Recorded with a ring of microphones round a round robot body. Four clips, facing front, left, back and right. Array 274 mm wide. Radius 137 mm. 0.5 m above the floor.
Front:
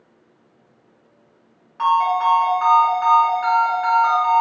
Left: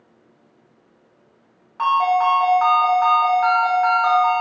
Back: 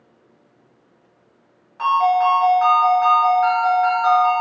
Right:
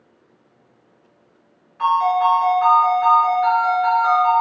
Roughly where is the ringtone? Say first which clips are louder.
Even, back 1 dB; left.